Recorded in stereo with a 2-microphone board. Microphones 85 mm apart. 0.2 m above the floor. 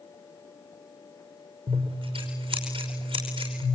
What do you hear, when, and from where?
1.7 s scissors: 85° right, 5.5 m